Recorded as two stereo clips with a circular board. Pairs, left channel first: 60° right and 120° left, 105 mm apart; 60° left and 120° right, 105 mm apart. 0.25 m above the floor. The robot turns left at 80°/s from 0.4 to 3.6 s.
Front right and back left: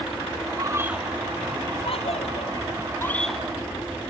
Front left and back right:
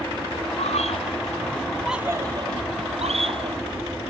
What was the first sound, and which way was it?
A scream, 70° left.